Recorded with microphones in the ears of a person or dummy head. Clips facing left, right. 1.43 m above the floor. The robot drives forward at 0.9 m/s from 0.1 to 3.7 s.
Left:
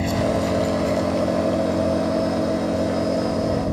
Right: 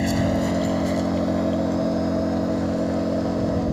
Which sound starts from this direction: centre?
An engine running, at 0.0 s.